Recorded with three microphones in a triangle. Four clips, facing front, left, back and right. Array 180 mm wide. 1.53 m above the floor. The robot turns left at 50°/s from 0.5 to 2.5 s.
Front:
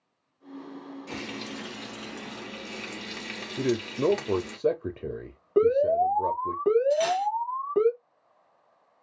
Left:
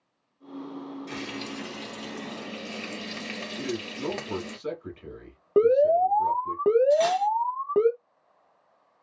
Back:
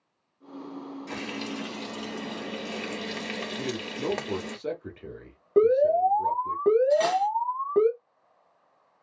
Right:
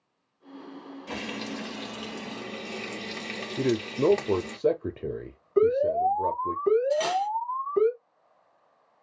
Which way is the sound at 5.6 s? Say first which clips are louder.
Left 3 dB, back 1 dB; 105° left.